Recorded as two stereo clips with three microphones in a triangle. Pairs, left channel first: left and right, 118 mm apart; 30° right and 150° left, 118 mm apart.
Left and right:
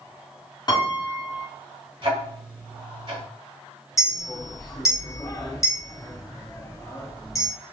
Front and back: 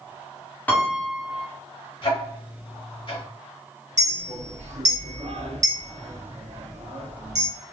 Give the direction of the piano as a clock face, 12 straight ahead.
11 o'clock.